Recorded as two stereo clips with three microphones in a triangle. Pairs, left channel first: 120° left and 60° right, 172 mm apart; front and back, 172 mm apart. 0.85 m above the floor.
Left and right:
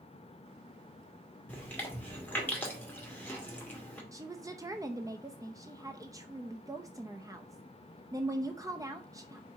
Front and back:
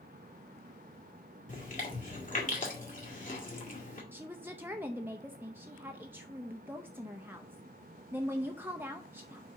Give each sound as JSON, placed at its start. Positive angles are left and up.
{"t": 1.5, "sound": "chewing", "azimuth_deg": 40, "distance_m": 2.0}
{"t": 4.1, "sound": "a woman speaking", "azimuth_deg": -115, "distance_m": 0.6}